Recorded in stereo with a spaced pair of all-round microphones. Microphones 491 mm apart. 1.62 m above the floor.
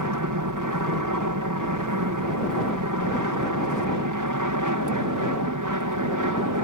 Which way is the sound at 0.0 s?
40° right (ahead or behind).